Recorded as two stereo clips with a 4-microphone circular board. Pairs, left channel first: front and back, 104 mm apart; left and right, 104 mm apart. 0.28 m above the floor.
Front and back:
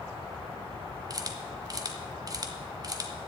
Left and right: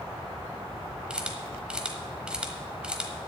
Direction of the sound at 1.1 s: 165° right.